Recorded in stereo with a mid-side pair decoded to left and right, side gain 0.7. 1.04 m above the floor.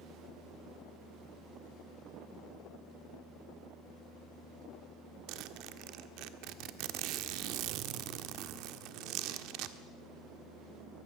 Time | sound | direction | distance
5.3 | a zipper | 65° right | 1.4 m